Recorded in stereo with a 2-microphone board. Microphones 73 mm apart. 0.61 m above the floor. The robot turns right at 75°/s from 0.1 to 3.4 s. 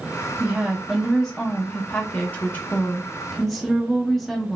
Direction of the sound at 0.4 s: 20° right (ahead or behind).